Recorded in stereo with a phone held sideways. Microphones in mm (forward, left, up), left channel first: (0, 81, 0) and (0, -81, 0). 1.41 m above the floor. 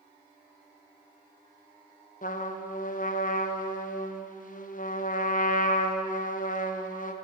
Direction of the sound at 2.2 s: 55° left (ahead or behind).